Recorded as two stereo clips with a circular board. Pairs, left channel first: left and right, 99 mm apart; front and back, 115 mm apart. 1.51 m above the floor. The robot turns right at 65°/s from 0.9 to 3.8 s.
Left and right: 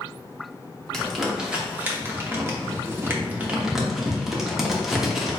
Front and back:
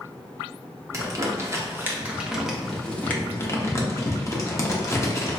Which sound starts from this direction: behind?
Crumpling, at 0.9 s.